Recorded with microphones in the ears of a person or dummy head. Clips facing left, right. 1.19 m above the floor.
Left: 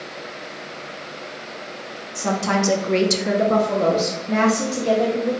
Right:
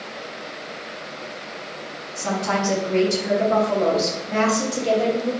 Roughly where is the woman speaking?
Left.